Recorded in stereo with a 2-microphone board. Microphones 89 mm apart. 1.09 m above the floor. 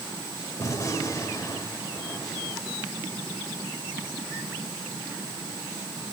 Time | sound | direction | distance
0.6 | a gunshot | 35° left (ahead or behind) | 4 m